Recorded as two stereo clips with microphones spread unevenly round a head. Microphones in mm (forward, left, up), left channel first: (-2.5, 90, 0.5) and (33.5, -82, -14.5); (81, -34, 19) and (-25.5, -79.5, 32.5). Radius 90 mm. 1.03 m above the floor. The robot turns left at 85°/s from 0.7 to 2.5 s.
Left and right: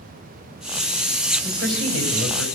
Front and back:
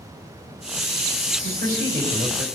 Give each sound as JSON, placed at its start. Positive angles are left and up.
{"t": 1.4, "sound": "a man speaking", "azimuth_deg": -175, "distance_m": 4.5}